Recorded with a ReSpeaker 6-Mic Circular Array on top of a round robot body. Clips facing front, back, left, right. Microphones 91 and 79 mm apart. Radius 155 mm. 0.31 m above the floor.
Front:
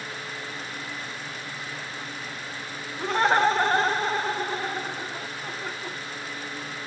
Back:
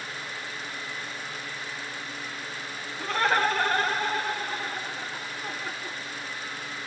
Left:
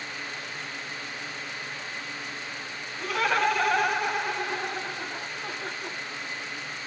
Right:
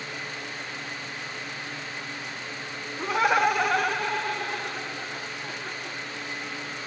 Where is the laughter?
55° right, 1.1 m; by 6.0 s 65° left, 1.6 m.